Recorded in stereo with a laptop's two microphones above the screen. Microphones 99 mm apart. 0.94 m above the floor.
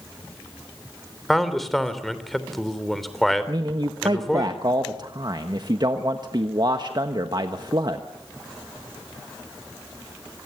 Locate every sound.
1.3 s a man speaking: centre (ahead or behind), 3.5 m
3.5 s a man speaking: 45° right (ahead or behind), 1.3 m